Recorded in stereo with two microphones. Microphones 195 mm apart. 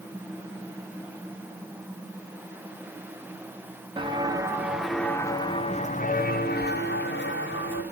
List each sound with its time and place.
4.0 s footsteps: 25° right (ahead or behind), 2.5 m; by 7.8 s 75° left (ahead or behind), 3.5 m